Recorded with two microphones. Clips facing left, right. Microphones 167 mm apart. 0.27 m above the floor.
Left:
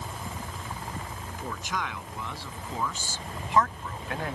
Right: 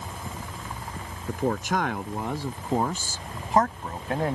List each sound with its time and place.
1.3 s a man speaking: 55° right (ahead or behind); by 4.4 s 35° right (ahead or behind)